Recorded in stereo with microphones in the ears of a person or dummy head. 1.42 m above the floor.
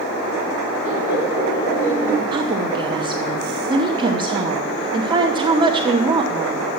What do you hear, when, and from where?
0.8 s laughter: 20° left (ahead or behind), 7 m; by 2.2 s 5° left (ahead or behind), 6 m
2.3 s a woman speaking: 25° right (ahead or behind), 0.8 m